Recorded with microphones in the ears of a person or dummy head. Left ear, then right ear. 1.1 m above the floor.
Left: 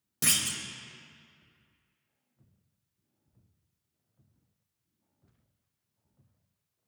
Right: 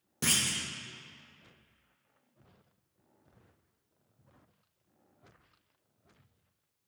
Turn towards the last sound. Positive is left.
turn(degrees=10)  # may be behind; listen again after turning